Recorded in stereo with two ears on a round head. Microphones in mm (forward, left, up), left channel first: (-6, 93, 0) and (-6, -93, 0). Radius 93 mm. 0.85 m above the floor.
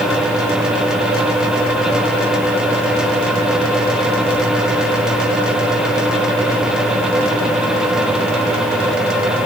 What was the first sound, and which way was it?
Only background noise.